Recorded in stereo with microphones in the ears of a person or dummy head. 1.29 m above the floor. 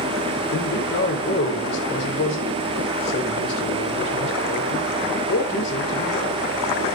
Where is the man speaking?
50° left (ahead or behind), 4.5 m.